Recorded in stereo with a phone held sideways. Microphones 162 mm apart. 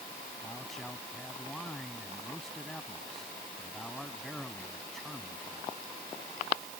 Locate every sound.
0.4 s a man speaking: 5° left (ahead or behind)